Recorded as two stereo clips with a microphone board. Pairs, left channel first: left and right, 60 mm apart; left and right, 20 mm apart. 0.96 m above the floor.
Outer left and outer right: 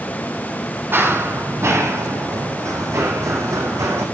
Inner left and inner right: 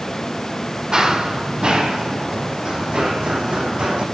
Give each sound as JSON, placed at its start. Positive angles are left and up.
{"t": 0.9, "sound": "running footsteps", "side_deg": -40, "distance_m": 1.6}